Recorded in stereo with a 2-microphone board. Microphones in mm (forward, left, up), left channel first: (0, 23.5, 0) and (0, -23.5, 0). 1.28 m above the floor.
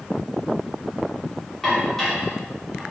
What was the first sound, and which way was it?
Dishes clattering, 5° left (ahead or behind).